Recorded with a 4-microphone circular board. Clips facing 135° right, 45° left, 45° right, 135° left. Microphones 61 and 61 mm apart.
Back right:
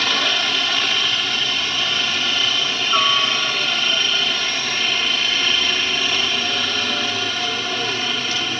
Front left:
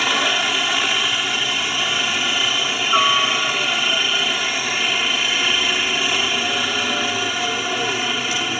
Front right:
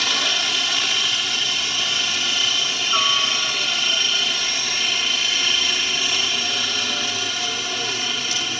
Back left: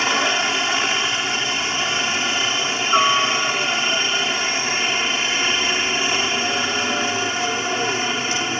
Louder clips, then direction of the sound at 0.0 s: Front left 1 dB, back left 4 dB; 115° left.